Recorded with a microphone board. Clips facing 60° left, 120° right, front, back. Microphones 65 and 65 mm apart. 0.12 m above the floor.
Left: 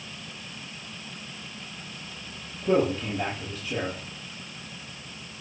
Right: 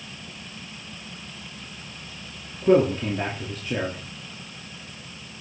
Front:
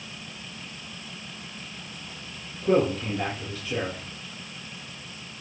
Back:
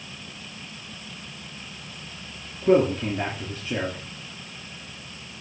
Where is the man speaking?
125° right, 2 m.